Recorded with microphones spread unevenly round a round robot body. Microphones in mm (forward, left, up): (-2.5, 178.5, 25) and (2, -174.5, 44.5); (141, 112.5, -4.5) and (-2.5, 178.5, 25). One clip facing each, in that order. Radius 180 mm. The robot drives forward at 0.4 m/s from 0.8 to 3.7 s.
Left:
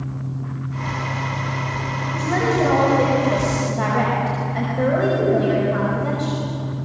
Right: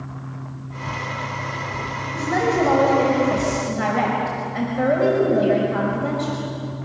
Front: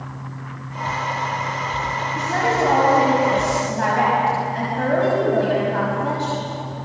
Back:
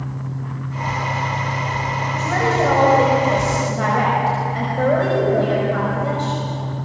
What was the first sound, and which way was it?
A woman speaking, straight behind.